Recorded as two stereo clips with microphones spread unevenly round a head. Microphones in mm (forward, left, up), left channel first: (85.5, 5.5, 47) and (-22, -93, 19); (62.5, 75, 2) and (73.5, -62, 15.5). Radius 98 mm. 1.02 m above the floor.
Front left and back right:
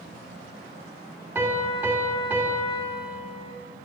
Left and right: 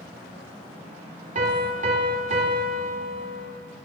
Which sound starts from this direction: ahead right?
A piano, at 1.4 s.